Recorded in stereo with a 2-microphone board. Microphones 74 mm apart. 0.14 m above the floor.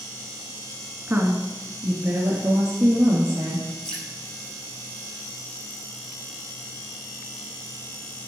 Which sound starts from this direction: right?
A woman speaking, at 1.1 s.